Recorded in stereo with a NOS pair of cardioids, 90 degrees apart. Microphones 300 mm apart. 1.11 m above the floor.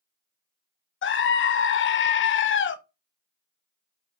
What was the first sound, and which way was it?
A scream, 40° left.